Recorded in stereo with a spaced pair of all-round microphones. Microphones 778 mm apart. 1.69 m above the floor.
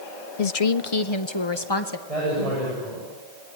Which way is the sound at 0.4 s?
55° left (ahead or behind).